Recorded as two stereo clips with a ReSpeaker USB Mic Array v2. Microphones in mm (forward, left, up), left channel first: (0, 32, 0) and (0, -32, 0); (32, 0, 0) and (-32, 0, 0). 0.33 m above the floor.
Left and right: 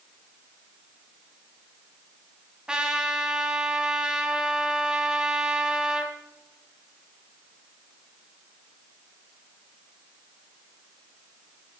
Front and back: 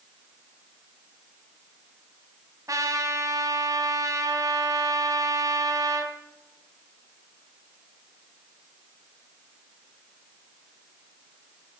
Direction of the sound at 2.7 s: 165° right.